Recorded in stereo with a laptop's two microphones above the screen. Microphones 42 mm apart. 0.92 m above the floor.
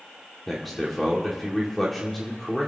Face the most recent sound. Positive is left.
turn(degrees=0)  # may be behind; listen again after turning